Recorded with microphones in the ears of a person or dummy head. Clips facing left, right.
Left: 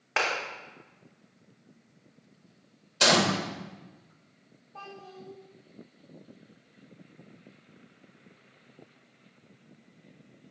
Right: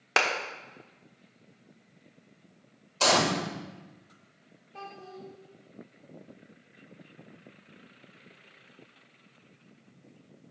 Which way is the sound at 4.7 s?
35° right (ahead or behind).